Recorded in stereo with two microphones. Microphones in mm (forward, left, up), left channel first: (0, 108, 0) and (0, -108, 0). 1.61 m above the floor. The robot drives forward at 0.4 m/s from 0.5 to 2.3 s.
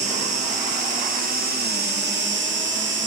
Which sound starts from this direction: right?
An insect, at 0.0 s.